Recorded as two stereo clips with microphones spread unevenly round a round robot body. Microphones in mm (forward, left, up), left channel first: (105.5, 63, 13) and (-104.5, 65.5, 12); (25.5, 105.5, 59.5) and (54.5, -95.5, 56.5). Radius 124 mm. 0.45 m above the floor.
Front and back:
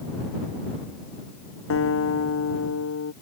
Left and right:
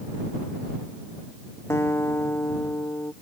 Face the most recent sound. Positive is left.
turn(degrees=20)